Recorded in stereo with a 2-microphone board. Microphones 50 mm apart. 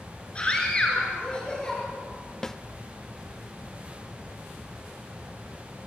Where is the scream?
20° left (ahead or behind), 5.5 m; by 1.8 s 15° left (ahead or behind), 6 m.